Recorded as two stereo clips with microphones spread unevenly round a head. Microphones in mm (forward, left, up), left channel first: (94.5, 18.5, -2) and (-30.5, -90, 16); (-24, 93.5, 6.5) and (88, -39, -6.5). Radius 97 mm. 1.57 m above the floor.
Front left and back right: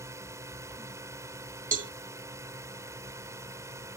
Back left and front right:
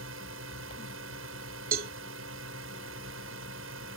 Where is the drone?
65° right.